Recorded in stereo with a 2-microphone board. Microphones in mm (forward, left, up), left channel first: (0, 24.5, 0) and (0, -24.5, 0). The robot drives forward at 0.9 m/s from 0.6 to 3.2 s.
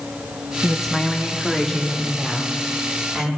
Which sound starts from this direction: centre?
A woman speaking, at 0.6 s.